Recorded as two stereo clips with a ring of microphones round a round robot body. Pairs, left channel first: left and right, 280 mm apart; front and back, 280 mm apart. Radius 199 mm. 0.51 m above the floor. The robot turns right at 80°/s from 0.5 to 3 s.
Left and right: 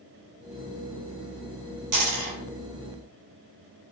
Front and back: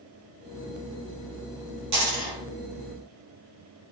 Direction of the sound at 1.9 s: 130° right.